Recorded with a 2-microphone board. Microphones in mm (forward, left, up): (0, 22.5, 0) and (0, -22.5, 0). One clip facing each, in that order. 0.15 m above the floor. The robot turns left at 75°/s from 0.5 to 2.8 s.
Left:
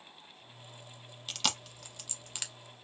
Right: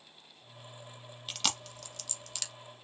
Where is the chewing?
5° right (ahead or behind), 0.7 m; by 2.5 s 25° left (ahead or behind), 0.7 m.